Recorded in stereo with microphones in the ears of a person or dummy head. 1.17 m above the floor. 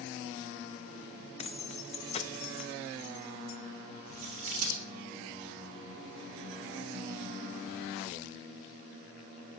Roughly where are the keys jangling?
Left.